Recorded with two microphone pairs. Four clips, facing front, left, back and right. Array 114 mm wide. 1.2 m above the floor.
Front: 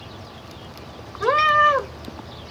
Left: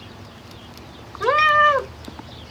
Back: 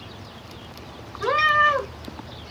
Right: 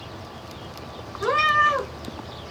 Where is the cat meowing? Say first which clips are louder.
Left 4 dB, front 3 dB; 45° left, 1.2 m.